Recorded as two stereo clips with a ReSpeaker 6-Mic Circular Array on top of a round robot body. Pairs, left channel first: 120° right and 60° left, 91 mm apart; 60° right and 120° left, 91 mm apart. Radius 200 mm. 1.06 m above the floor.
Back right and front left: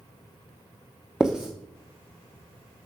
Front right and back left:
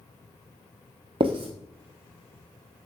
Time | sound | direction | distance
1.2 | writing | 145° left | 0.9 m